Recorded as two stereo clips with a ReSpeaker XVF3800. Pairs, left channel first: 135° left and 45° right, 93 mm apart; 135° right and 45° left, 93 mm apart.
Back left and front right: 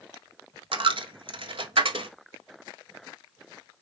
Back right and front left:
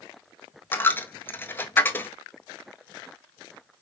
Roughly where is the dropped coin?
Right.